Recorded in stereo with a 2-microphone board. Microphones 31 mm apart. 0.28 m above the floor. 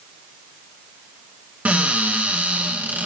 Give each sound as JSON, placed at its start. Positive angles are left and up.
{"t": 1.6, "sound": "a cupboard door", "side_deg": -55, "distance_m": 3.0}